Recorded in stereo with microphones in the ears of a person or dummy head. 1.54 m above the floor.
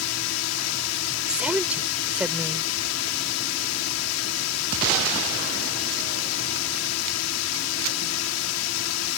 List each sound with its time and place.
0.0 s a drone: 85° left
1.3 s a woman speaking: 5° right (ahead or behind)